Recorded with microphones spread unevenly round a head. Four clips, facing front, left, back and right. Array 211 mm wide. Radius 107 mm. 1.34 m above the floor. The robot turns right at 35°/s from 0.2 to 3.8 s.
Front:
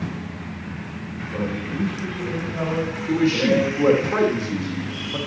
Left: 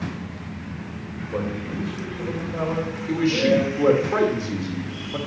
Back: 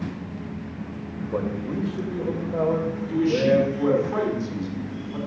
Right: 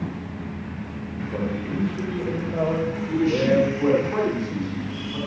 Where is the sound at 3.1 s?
20° left, 2 m; by 5.2 s 45° left, 2 m.